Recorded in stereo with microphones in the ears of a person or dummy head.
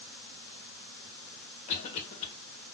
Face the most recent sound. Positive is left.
turn(degrees=40)  # may be behind; listen again after turning